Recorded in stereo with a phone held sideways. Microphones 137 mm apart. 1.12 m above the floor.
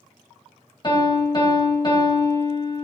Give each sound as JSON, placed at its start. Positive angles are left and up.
{"t": 0.8, "sound": "a piano", "side_deg": 30, "distance_m": 1.5}